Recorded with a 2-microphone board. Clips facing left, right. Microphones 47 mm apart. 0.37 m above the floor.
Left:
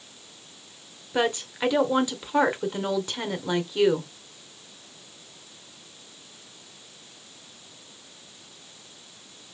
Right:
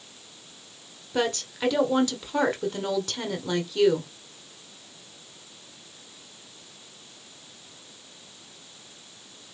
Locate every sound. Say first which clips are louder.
1.1 s a woman speaking: left 2 dB; 20° left (ahead or behind), 1.3 m